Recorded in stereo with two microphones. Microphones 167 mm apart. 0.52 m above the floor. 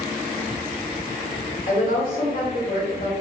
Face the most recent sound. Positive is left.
turn(degrees=60)  # may be behind; listen again after turning